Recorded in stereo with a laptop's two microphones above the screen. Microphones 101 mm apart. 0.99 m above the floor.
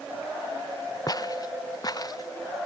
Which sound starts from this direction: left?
Footsteps, at 1.1 s.